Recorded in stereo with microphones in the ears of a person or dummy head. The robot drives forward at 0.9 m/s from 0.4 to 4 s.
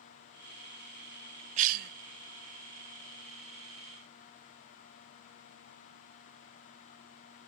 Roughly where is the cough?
Right.